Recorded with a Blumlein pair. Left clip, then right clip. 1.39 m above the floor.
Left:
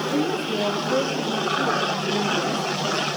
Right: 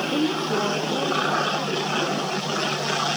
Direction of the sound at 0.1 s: Straight ahead.